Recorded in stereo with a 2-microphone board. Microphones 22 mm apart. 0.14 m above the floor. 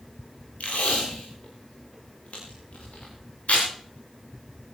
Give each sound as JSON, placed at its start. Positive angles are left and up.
{"t": 0.6, "sound": "tape being pulled", "side_deg": 85, "distance_m": 9.5}